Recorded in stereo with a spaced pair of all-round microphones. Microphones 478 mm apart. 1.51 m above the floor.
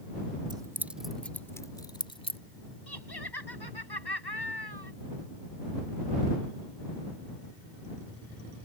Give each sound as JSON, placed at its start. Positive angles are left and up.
{"t": 0.5, "sound": "keys jangling", "side_deg": -10}
{"t": 2.9, "sound": "laughter", "side_deg": 55}